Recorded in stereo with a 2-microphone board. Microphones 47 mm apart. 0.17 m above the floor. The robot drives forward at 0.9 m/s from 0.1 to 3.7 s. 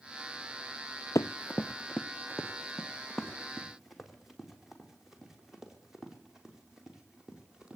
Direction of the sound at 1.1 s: 75° left (ahead or behind).